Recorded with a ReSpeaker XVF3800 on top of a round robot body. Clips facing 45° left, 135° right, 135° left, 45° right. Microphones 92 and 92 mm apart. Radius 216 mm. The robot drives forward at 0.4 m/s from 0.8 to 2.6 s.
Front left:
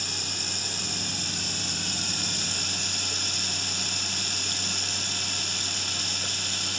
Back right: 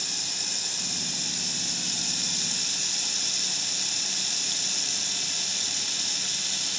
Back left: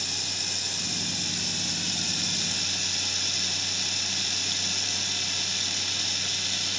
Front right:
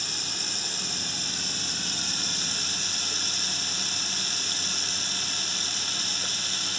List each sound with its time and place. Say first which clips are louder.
0.0 s running water: front left 4 dB, even; 5° left